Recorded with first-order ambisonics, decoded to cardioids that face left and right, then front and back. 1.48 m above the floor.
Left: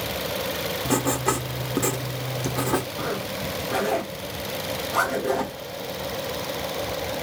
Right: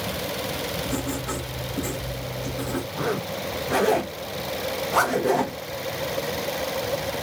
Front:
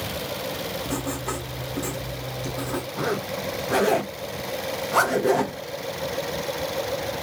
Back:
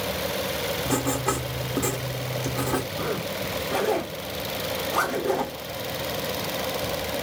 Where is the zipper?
20° right, 0.6 m.